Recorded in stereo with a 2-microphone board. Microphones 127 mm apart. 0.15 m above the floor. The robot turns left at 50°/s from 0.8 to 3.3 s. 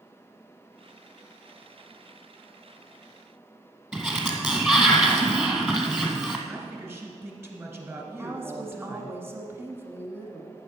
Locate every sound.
3.9 s a sliding door: 10° right (ahead or behind), 1.3 m
6.5 s a man speaking: 20° right (ahead or behind), 2.0 m
8.2 s a woman speaking: 20° right (ahead or behind), 1.4 m